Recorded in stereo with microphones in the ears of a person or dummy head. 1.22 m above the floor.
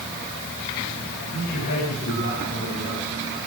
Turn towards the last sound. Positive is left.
turn(degrees=50)  # may be behind; listen again after turning